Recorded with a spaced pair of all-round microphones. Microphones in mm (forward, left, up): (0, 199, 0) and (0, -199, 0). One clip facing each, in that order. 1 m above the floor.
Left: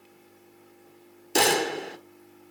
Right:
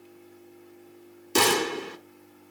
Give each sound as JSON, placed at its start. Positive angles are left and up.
{"t": 1.4, "sound": "a gunshot", "side_deg": -15, "distance_m": 0.6}